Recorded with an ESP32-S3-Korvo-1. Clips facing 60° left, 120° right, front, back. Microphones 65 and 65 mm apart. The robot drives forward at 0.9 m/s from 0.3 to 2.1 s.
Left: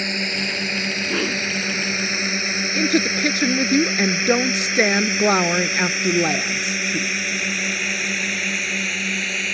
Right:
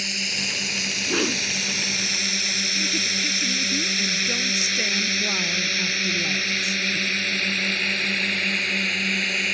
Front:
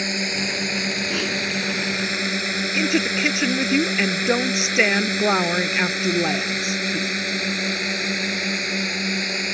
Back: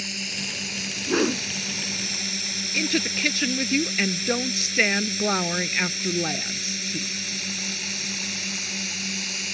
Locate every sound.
0.0 s a drone: 20° left; by 9.6 s 25° right
1.1 s a whoosh: 145° left; by 1.4 s 160° left
2.7 s a woman speaking: 65° left